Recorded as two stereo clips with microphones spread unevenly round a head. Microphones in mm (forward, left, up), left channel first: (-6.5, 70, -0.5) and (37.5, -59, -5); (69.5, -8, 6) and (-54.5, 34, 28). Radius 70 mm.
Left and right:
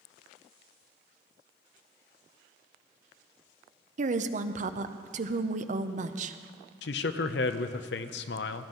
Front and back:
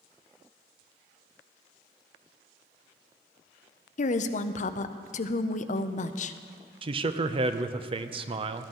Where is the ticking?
No ticking in this recording.